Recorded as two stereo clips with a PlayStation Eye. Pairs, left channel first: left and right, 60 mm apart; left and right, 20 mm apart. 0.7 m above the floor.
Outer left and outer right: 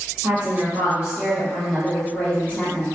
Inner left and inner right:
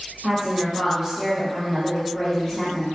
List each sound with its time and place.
0.2 s a woman speaking: 45° right (ahead or behind), 1.0 m; by 2.9 s 30° left (ahead or behind), 1.4 m